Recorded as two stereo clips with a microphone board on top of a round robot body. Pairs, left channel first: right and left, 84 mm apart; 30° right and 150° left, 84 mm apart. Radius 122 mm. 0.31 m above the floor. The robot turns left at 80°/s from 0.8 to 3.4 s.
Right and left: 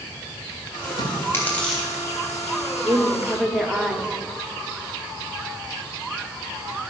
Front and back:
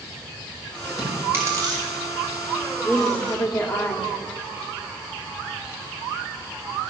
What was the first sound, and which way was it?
Chewing, 120° right.